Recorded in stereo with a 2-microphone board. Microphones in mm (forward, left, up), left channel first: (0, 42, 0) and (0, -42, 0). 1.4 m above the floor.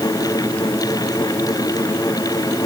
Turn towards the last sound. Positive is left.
No sound to turn to.